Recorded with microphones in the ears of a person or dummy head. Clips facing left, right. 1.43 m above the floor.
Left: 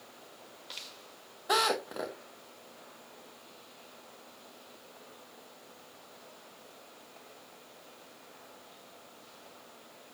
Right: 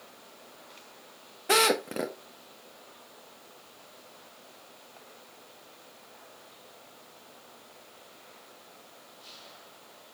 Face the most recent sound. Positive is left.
turn(degrees=-35)  # may be behind; listen again after turning